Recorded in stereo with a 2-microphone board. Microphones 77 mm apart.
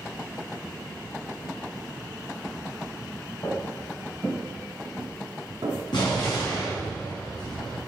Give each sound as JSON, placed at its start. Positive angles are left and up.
{"t": 3.4, "sound": "footsteps", "side_deg": 40, "distance_m": 2.5}
{"t": 5.9, "sound": "an explosion", "side_deg": 75, "distance_m": 4.0}